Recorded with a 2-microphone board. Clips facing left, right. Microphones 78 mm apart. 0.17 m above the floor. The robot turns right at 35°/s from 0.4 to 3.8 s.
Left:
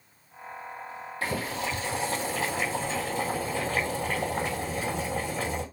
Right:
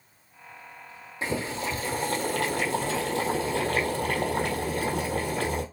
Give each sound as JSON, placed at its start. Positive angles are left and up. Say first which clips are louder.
{"t": 1.2, "sound": "boiling", "louder": "right 1 dB", "azimuth_deg": -160, "distance_m": 1.4}